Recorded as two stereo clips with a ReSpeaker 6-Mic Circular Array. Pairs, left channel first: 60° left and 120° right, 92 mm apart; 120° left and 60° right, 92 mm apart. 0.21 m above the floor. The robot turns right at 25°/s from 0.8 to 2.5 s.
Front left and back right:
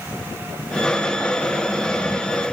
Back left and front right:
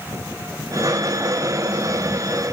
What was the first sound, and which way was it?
Only background noise.